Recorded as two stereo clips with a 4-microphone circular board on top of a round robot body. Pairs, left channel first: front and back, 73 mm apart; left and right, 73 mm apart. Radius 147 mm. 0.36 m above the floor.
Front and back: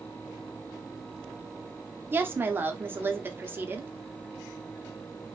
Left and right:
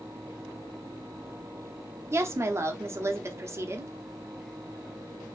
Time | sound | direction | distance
2.1 | a woman speaking | 130° right | 1.1 m